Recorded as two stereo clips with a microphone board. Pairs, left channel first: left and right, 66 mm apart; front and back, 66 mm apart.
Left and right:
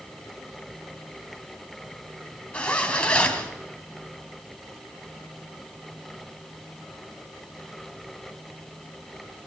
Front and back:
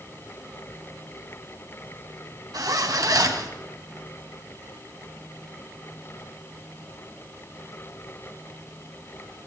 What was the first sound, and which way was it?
A zipper, 160° left.